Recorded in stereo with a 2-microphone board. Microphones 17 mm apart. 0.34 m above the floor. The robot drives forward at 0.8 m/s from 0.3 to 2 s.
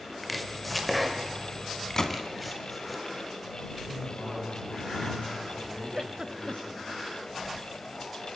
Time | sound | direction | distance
0.2 | chopping | centre (ahead or behind) | 1.5 m
2.0 | a gunshot | 30° left (ahead or behind) | 1.6 m
3.9 | a man speaking | 65° left (ahead or behind) | 9.5 m
5.9 | a giggle | 35° right (ahead or behind) | 0.7 m